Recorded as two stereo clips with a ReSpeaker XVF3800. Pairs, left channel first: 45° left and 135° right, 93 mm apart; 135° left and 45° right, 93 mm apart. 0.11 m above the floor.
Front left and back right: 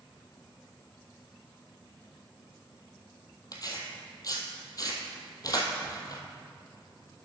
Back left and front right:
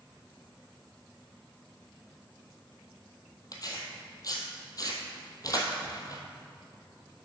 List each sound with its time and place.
3.5 s tearing paper: 90° left, 1.2 m